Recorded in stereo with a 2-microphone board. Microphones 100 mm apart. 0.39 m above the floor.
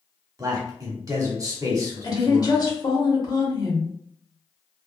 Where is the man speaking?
30° right (ahead or behind), 1.0 m.